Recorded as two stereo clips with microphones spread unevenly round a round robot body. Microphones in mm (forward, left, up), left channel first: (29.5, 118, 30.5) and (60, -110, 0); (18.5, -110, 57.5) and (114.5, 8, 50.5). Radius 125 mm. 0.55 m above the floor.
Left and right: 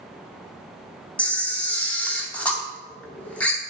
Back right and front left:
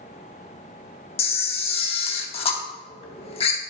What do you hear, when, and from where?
1.2 s a camera shutter: 170° right, 0.7 m